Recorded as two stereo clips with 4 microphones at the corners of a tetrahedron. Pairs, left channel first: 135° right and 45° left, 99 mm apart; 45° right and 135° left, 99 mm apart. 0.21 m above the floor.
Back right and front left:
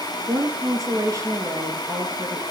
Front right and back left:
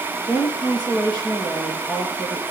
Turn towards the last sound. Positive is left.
turn(degrees=-5)